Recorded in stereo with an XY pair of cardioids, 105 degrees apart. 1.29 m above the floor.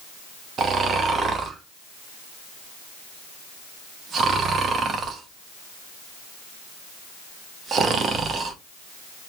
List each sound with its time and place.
0.6 s snoring: 55° right, 0.6 m